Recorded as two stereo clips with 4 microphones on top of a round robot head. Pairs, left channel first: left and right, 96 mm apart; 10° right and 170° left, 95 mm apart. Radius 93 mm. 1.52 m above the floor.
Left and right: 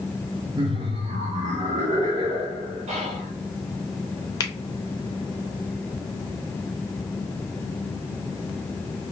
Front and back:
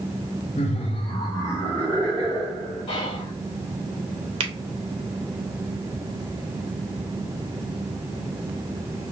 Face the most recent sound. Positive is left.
turn(degrees=145)